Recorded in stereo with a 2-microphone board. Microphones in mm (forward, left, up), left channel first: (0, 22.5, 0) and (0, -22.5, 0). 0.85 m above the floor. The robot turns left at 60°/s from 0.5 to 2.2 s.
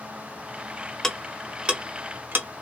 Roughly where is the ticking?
Centre.